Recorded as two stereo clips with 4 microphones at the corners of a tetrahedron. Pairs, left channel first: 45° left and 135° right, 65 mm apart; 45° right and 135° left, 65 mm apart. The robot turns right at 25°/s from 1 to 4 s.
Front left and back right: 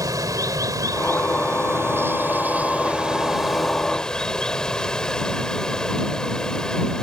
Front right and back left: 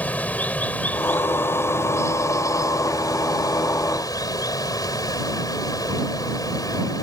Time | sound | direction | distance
0.0 | running water | 110° right | ?